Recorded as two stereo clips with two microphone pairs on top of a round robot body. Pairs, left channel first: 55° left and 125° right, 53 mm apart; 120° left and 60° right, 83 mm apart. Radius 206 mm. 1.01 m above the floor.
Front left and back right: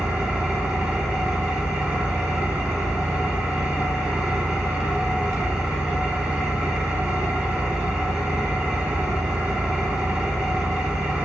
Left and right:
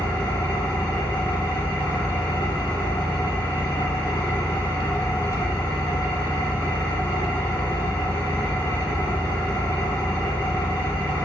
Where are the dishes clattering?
No dishes clattering in this recording.